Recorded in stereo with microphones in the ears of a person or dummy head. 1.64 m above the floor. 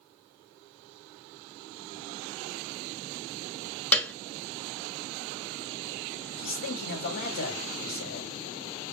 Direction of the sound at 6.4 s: 60° left (ahead or behind).